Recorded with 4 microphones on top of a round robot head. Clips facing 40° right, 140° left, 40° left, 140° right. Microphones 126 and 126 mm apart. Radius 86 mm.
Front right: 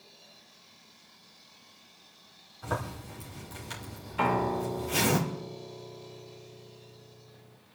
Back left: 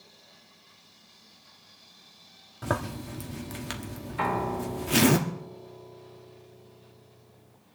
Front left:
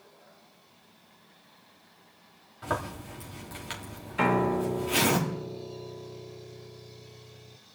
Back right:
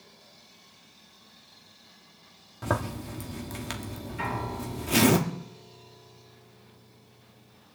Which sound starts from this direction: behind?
A zipper, at 2.6 s.